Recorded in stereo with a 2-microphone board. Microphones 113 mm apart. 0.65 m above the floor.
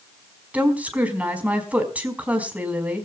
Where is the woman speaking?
15° right (ahead or behind), 4.5 m.